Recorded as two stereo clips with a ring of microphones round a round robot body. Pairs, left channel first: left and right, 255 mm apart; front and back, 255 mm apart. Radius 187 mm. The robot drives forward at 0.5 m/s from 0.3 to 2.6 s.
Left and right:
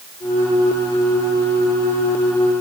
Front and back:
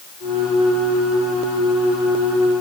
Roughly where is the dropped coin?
No dropped coin in this recording.